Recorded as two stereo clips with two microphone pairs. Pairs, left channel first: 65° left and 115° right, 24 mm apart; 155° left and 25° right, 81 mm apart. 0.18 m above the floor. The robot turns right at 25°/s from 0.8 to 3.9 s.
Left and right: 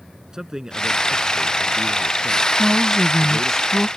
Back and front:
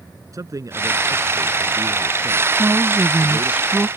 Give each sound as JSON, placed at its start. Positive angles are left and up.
{"t": 0.3, "sound": "a man speaking", "azimuth_deg": -55}
{"t": 2.6, "sound": "a woman speaking", "azimuth_deg": -20}